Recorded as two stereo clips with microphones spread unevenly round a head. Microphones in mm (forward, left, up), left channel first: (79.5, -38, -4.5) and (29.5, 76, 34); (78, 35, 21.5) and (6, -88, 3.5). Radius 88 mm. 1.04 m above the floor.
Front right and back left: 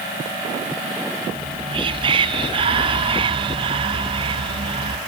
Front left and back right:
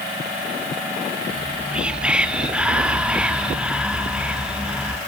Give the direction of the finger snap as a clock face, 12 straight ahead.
No finger snap in this recording.